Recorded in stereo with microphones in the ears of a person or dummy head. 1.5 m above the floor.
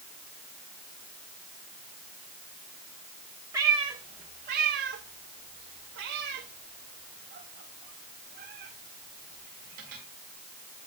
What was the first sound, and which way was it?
A cat meowing, 20° right (ahead or behind).